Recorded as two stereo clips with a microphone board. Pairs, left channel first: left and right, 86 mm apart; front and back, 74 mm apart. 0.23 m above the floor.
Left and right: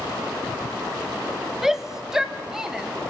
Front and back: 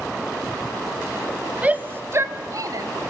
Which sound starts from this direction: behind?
A shout, at 1.6 s.